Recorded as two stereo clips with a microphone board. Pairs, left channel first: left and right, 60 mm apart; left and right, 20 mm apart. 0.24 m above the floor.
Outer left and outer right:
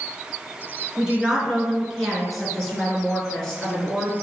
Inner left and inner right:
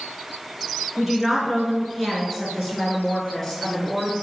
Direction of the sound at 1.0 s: 10° right (ahead or behind).